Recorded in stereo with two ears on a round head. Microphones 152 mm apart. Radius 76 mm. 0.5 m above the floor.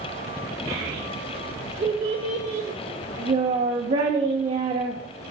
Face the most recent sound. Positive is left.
turn(degrees=-40)  # may be behind; listen again after turning